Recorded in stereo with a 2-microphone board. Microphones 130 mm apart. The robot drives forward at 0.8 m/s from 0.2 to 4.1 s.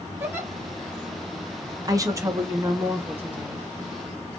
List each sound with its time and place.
0.2 s a giggle: 15° right (ahead or behind), 1.7 m; by 0.5 s 20° right (ahead or behind), 1.5 m
1.9 s a woman speaking: 30° right (ahead or behind), 1.1 m; by 3.7 s 15° right (ahead or behind), 2.5 m